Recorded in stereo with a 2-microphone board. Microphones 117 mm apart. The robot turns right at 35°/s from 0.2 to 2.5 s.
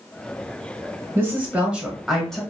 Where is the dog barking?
No dog barking in this recording.